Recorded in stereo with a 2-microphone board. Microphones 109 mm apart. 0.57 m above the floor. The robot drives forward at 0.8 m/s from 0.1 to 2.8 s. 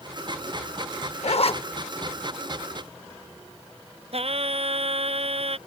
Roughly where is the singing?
Right.